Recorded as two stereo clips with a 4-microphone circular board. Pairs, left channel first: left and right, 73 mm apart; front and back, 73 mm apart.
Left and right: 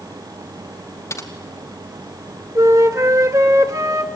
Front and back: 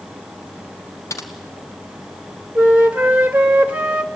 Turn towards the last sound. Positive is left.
turn(degrees=-110)